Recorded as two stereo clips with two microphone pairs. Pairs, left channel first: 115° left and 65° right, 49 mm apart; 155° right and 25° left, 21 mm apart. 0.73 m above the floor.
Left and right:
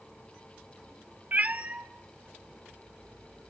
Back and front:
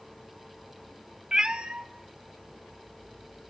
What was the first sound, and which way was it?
A cat meowing, 20° right.